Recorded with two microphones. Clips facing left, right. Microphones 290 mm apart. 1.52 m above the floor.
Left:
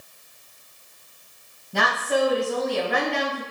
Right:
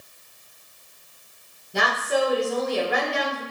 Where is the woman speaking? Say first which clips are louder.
Left 1 dB; 60° left (ahead or behind), 1.9 m.